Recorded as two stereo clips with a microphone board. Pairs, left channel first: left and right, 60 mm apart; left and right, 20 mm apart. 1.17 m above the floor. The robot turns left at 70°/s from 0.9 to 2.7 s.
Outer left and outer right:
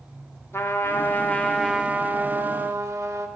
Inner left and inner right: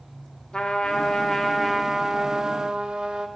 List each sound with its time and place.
0.5 s a trumpet: 55° left, 1.1 m; by 3.3 s 70° right, 1.1 m